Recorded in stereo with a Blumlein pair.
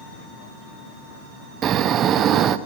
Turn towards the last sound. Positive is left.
turn(degrees=-30)